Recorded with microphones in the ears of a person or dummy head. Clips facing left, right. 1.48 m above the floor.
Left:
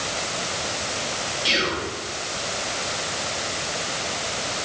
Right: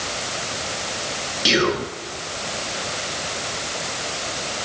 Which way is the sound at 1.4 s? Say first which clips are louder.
Right 8 dB; 65° right (ahead or behind).